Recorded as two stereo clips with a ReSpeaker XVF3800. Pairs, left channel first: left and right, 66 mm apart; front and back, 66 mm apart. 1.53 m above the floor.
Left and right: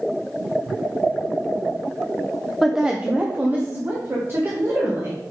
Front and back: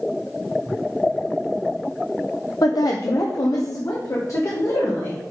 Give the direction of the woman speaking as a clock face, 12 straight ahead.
12 o'clock.